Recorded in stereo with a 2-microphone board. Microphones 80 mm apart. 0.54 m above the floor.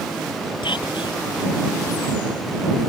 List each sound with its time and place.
0.6 s whispering: 85° left